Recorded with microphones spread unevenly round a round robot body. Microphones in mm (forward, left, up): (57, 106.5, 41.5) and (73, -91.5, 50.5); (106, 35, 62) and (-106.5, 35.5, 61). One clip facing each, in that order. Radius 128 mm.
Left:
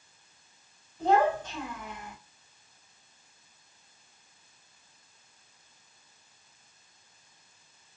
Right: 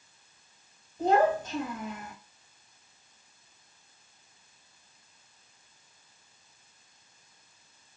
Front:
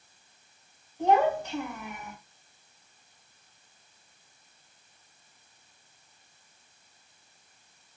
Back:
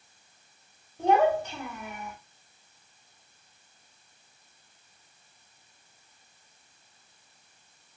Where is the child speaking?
145° right, 1.6 m.